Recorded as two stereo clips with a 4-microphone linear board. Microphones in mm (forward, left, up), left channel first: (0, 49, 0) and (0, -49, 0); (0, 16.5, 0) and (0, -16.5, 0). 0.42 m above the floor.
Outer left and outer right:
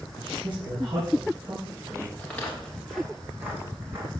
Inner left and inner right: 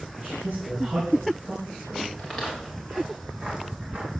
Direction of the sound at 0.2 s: 50° right (ahead or behind).